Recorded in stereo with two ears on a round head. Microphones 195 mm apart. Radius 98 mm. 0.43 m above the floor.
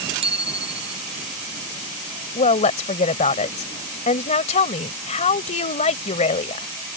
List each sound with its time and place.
0.2 s a bicycle bell: 30° right (ahead or behind)
2.4 s a woman speaking: 35° left (ahead or behind)